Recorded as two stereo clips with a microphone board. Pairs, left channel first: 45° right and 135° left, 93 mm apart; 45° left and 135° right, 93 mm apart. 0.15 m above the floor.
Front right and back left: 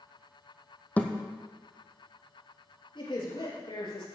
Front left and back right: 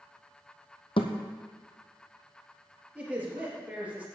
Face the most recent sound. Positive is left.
turn(degrees=-60)